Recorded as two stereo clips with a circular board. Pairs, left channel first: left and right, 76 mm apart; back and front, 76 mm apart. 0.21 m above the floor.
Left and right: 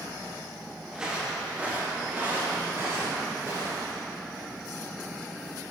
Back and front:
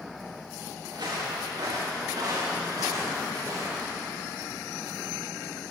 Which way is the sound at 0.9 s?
10° right.